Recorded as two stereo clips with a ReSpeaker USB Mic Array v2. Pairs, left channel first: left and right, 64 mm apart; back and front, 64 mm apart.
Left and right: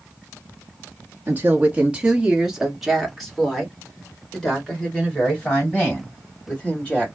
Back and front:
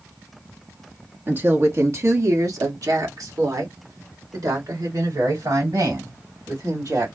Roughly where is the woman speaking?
Ahead right.